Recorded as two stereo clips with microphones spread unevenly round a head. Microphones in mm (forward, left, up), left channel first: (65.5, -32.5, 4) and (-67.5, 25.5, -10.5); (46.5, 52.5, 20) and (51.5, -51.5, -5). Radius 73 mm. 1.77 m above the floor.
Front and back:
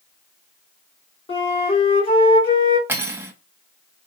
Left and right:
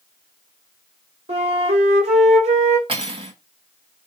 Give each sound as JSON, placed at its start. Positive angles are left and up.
{"t": 1.3, "sound": "a flute", "azimuth_deg": -70, "distance_m": 3.0}
{"t": 2.9, "sound": "cutlery clinking", "azimuth_deg": -130, "distance_m": 1.4}